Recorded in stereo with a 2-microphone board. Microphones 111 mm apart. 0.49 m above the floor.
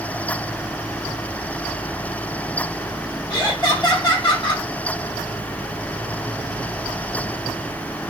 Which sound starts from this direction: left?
Laughter, at 3.3 s.